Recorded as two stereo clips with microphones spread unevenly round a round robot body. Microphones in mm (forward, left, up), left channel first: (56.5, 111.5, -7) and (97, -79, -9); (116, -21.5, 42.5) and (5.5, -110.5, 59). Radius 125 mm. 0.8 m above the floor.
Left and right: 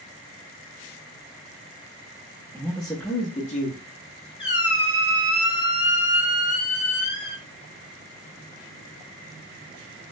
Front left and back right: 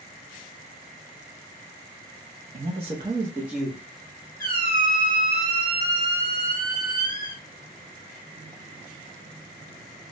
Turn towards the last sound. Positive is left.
turn(degrees=180)